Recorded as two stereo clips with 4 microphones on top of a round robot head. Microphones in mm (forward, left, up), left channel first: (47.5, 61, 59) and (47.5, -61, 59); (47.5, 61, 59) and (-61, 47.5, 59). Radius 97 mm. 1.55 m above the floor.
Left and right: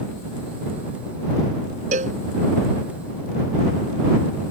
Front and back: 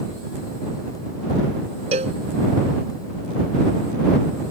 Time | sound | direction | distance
1.9 | a cowbell | 130° right | ?